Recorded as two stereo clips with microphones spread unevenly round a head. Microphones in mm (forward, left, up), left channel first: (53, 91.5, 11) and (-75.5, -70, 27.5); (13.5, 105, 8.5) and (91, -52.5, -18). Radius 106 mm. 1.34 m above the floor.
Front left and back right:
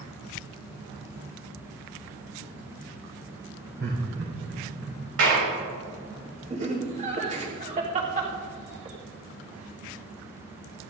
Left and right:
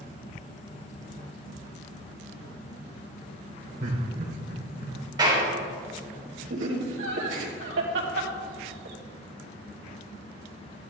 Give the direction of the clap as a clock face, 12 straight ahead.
4 o'clock.